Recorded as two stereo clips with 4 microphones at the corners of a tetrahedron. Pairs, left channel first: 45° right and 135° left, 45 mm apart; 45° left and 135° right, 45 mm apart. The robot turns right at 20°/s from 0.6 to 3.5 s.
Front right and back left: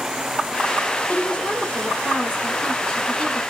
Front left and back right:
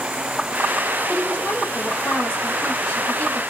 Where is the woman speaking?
20° right, 1.6 m; by 3.4 s 25° left, 1.6 m.